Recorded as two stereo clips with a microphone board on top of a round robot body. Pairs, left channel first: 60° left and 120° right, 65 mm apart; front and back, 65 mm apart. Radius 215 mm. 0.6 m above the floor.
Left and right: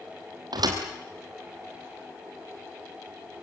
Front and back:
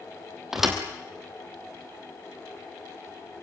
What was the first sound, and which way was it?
A thud, 95° right.